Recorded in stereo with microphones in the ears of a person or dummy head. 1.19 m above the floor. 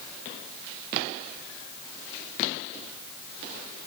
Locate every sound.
Only background noise.